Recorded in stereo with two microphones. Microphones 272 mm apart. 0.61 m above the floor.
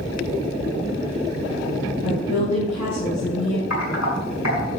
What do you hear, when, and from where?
2.0 s a woman speaking: 75° left (ahead or behind), 5 m
3.7 s typing on a keyboard: 80° left, 6 m